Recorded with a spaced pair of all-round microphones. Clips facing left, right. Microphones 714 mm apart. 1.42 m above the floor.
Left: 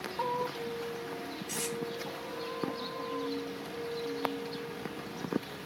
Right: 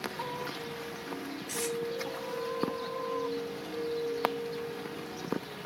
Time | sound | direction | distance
1.5 | tape being pulled | 15° left (ahead or behind) | 3 m